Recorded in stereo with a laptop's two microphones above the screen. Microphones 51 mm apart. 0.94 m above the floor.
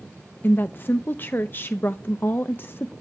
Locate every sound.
0.4 s a woman speaking: 40° left (ahead or behind), 0.7 m